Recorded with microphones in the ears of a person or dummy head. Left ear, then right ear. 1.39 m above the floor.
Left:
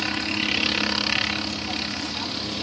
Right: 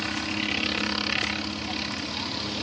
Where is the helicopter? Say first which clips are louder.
Left 4 dB; 10° left (ahead or behind); by 2.6 s centre (ahead or behind).